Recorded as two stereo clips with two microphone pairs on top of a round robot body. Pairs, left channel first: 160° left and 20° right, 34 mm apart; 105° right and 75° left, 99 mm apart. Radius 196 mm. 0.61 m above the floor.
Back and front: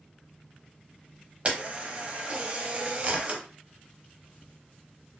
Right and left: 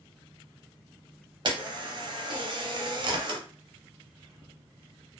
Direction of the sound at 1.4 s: 35° left.